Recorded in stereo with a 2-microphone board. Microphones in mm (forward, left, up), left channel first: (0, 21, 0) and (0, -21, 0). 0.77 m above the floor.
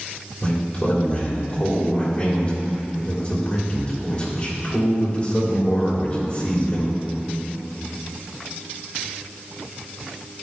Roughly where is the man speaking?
Left.